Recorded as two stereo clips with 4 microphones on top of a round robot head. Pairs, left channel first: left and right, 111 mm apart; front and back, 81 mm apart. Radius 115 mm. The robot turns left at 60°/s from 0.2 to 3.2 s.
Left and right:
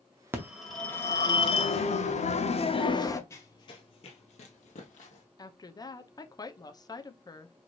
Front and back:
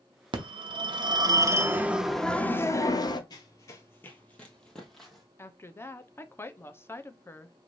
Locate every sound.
0.3 s a phone ringing: 160° right, 0.8 m; by 3.2 s 25° left, 0.8 m
3.3 s running footsteps: 30° left, 0.9 m; by 5.2 s 90° left, 1.5 m
5.4 s a woman speaking: 50° left, 0.8 m